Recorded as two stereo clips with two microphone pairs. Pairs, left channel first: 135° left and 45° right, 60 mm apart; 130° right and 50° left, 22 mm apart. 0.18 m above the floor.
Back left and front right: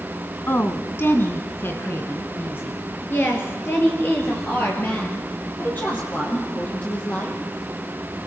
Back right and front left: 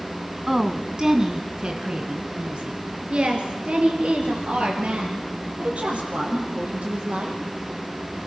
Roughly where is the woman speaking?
Behind left.